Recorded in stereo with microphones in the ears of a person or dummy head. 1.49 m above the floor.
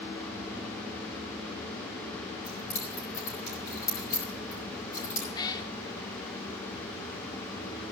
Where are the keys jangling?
15° left (ahead or behind), 4.5 m.